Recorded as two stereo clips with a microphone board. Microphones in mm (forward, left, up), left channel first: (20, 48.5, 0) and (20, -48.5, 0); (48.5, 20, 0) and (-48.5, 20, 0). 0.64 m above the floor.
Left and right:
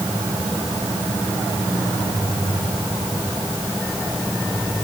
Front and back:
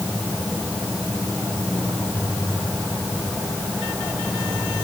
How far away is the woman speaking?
I don't hear a woman speaking.